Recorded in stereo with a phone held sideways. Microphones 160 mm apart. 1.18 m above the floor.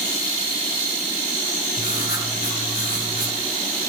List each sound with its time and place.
1.8 s writing: 80° left, 7.5 m